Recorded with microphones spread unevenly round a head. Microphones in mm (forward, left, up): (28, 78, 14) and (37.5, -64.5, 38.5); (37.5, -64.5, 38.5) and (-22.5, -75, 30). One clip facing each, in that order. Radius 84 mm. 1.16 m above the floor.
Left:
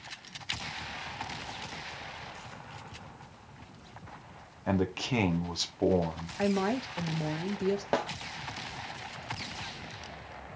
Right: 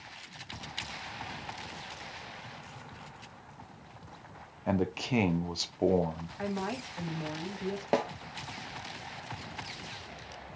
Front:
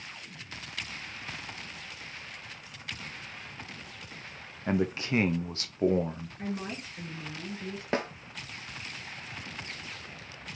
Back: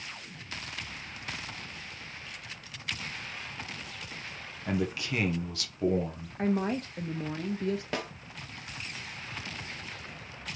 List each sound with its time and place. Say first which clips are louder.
4.7 s a man speaking: even, front 3 dB; 10° left, 0.7 m
6.4 s a woman speaking: left 7 dB, back 8 dB; 150° left, 0.7 m
7.9 s a snare drum: right 1 dB, front 4 dB; 5° right, 0.5 m